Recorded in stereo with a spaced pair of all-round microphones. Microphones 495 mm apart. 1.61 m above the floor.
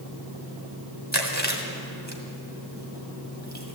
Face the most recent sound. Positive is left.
turn(degrees=-35)  # may be behind; listen again after turning